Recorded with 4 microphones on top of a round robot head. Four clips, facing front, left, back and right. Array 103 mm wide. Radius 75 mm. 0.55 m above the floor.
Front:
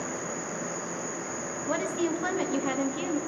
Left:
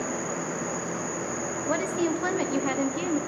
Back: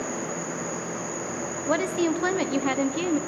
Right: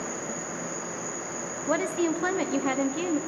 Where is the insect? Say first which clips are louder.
Left 4 dB, back 3 dB; 55° right, 1.7 m.